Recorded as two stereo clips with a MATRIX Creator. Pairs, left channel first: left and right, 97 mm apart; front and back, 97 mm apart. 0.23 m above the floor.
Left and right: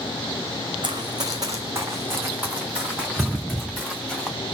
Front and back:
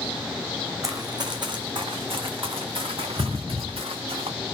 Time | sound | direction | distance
0.8 | running footsteps | 125° right | 1.1 m